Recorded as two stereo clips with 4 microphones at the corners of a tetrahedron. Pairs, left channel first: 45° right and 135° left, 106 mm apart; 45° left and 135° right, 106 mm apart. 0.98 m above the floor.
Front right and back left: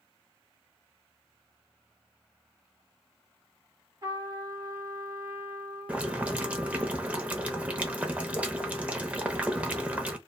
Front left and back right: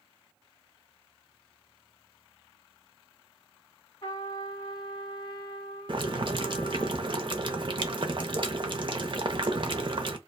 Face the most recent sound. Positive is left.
turn(degrees=-155)